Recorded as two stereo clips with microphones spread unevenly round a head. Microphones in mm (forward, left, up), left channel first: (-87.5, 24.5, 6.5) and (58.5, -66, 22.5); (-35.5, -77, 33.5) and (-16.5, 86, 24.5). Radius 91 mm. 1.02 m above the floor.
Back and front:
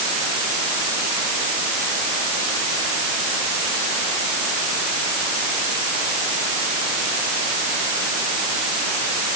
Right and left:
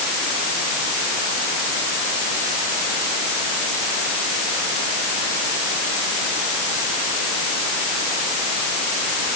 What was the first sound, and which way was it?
Only background noise.